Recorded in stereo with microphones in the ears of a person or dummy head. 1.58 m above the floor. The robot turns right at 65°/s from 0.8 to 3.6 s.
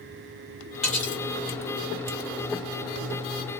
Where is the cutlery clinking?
5° left (ahead or behind), 1.6 m; by 1.2 s 25° left (ahead or behind), 1.6 m.